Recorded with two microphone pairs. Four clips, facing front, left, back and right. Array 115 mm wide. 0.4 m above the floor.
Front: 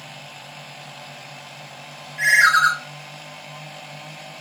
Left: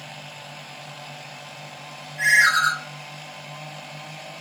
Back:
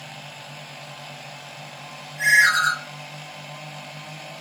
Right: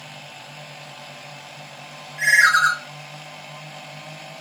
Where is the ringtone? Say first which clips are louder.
Right 2 dB, front 3 dB; 35° right, 0.6 m.